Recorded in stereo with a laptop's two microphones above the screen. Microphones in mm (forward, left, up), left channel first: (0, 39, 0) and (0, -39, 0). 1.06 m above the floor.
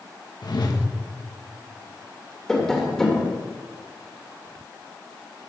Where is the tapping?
5° left (ahead or behind), 1.9 m.